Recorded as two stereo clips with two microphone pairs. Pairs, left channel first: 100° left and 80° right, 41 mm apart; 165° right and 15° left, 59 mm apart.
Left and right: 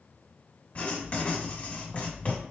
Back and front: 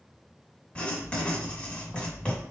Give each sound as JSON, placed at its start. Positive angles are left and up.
{"t": 0.8, "sound": "writing", "azimuth_deg": 135, "distance_m": 1.4}